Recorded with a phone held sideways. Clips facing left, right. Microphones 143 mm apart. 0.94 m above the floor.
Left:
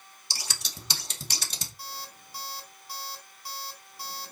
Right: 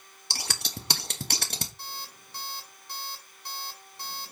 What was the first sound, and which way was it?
Scissors, 60° right (ahead or behind).